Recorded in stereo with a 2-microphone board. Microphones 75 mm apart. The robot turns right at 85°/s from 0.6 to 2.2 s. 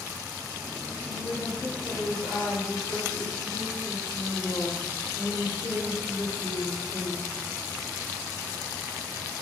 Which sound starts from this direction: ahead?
A woman speaking, at 1.1 s.